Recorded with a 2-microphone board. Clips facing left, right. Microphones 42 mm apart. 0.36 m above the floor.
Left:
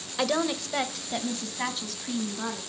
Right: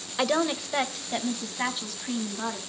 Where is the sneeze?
I don't hear a sneeze.